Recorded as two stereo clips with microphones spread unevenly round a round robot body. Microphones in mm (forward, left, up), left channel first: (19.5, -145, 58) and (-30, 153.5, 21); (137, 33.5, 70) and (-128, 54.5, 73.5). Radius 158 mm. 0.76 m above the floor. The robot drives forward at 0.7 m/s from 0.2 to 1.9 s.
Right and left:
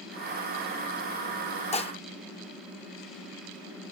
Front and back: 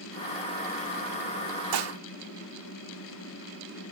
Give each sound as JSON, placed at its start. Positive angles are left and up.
{"t": 1.7, "sound": "dishes clattering", "azimuth_deg": -150}